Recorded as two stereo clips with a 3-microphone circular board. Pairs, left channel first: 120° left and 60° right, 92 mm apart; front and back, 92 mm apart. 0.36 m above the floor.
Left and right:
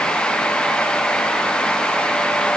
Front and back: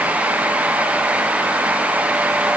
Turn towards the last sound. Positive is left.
No sound to turn to.